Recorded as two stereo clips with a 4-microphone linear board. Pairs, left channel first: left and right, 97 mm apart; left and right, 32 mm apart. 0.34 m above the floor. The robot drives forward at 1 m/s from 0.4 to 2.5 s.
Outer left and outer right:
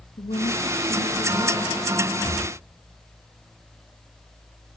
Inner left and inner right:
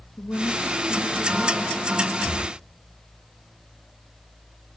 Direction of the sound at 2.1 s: 35° right (ahead or behind).